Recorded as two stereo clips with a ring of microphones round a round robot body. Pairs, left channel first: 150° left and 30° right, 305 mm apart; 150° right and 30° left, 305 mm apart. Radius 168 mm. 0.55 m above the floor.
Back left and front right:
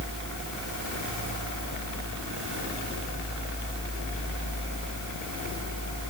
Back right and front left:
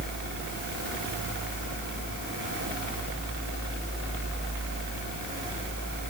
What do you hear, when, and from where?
Only background noise.